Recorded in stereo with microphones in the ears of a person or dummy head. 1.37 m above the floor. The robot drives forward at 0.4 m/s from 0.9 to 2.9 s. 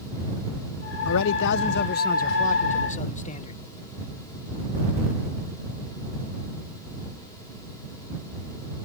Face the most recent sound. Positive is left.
turn(degrees=30)  # may be behind; listen again after turning